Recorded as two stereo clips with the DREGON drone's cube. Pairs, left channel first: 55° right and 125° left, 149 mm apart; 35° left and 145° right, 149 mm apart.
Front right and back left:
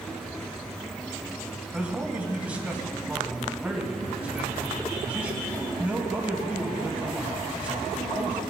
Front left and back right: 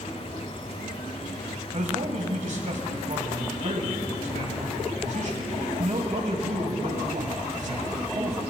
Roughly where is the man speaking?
Behind right.